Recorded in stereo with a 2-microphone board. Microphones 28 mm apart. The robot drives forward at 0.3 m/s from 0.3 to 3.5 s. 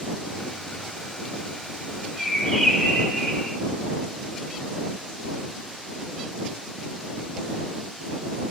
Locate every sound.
2.2 s a bird: 25° left (ahead or behind), 1.3 m; by 3.6 s 20° left (ahead or behind), 1.6 m